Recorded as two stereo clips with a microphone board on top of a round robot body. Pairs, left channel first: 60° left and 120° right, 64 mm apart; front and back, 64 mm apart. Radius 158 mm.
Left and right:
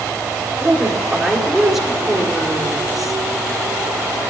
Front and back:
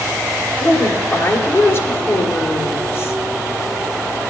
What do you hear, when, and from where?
0.6 s a woman speaking: 35° right, 2 m